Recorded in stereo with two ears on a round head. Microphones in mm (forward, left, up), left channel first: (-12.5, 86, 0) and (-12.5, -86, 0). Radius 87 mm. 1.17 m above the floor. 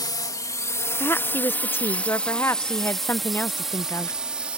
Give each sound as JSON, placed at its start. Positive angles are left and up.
{"t": 0.0, "sound": "a drone", "side_deg": 20}
{"t": 1.0, "sound": "a woman speaking", "side_deg": 10}